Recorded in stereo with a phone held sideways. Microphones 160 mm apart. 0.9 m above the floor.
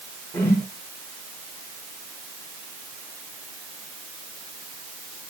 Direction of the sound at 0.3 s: 15° left (ahead or behind).